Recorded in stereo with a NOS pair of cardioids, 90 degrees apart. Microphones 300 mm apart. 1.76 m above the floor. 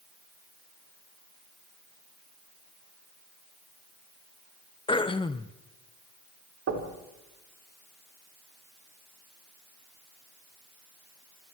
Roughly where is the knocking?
Ahead right.